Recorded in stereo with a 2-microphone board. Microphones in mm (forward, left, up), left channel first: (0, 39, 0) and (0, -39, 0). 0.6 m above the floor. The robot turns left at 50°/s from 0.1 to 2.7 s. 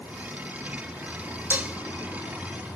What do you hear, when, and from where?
1.5 s dishes clattering: 25° right (ahead or behind), 1.1 m; by 1.8 s 15° right (ahead or behind), 1.1 m